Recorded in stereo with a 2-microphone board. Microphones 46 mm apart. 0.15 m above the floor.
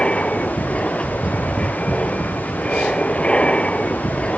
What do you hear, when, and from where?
0.0 s an aircraft: 25° left (ahead or behind)